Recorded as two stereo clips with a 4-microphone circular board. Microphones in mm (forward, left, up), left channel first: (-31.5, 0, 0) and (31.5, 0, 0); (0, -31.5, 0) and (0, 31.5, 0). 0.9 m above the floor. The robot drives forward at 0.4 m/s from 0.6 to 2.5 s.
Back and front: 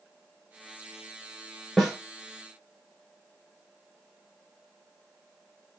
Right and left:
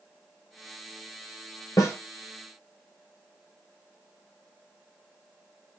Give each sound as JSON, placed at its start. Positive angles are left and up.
{"t": 1.8, "sound": "a snare drum", "azimuth_deg": -95, "distance_m": 1.3}